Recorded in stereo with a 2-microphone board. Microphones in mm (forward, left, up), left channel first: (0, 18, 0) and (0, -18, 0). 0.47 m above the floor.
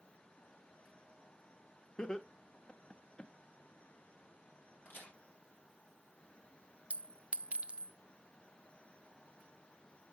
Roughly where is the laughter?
Left.